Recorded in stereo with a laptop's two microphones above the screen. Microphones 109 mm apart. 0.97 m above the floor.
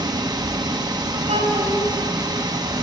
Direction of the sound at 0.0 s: 40° right (ahead or behind).